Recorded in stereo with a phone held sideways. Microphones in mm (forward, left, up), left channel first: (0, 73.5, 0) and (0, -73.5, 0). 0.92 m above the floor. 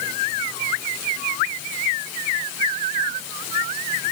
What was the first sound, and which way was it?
Only background noise.